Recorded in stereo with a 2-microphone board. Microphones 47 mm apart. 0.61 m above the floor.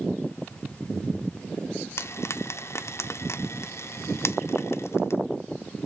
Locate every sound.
2.0 s frying: 70° left (ahead or behind), 0.7 m